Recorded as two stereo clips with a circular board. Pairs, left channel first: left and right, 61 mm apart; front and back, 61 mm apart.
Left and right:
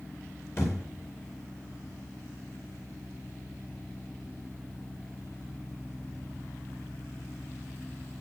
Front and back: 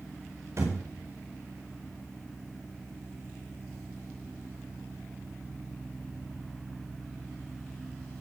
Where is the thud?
135° left, 10 m.